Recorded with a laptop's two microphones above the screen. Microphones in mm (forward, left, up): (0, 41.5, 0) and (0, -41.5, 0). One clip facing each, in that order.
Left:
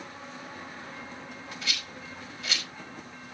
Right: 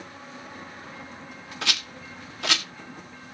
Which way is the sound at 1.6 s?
80° right.